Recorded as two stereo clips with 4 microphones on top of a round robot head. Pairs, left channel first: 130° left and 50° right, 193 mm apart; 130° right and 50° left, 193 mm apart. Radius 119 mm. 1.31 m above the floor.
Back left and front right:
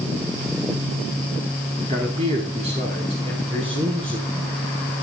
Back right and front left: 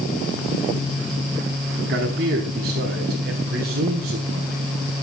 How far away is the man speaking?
About 4.5 m.